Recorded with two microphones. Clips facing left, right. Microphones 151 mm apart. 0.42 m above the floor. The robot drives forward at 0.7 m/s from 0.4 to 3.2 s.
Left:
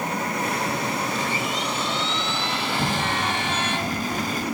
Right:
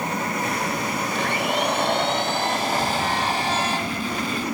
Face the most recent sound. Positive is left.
turn(degrees=40)  # may be behind; listen again after turning